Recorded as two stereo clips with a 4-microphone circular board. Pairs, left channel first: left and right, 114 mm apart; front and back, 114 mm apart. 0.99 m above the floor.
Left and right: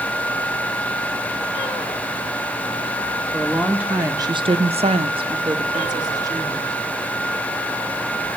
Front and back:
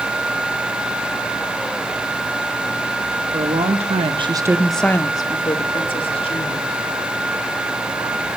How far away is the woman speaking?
About 1.5 m.